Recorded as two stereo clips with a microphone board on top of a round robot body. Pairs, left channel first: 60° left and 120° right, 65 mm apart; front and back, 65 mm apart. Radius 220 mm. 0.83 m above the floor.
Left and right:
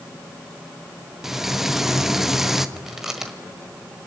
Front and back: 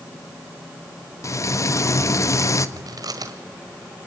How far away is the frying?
About 1.5 m.